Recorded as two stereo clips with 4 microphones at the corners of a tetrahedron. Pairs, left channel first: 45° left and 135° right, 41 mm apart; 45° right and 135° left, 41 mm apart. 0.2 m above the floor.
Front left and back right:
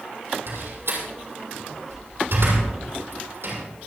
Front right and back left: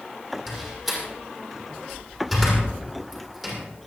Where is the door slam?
130° right, 6.5 m.